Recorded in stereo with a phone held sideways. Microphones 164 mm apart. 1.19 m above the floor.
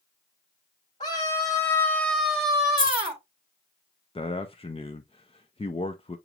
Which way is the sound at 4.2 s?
35° left (ahead or behind).